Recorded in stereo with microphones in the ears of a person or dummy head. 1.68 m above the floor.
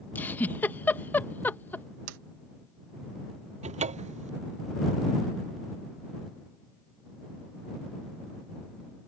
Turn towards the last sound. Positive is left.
turn(degrees=-35)  # may be behind; listen again after turning